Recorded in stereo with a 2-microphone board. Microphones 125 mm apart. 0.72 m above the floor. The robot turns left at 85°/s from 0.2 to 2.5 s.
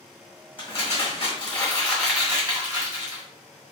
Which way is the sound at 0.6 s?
125° left.